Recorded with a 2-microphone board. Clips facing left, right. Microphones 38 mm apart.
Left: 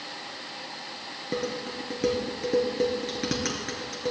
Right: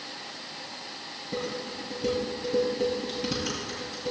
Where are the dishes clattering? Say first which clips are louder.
Left 2 dB; 80° left, 4 m.